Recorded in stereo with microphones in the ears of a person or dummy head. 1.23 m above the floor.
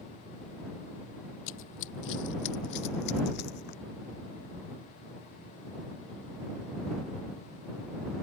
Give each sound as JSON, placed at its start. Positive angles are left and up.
{"t": 1.5, "sound": "running footsteps", "side_deg": 60}